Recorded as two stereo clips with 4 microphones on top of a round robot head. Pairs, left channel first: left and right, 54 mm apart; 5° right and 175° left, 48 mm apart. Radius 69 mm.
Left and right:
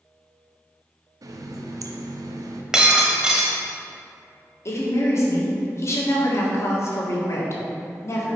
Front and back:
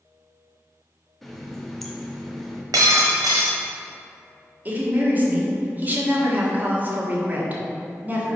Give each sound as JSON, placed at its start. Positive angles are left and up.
{"t": 1.2, "sound": "a running tap", "azimuth_deg": -90, "distance_m": 0.6}
{"t": 2.7, "sound": "breaking glass", "azimuth_deg": -165, "distance_m": 0.9}
{"t": 4.7, "sound": "a woman speaking", "azimuth_deg": 125, "distance_m": 1.6}